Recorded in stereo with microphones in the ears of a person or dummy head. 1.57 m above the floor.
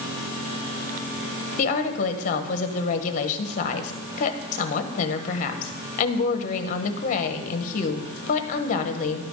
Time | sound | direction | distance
1.6 | a woman speaking | 45° left (ahead or behind) | 1.1 m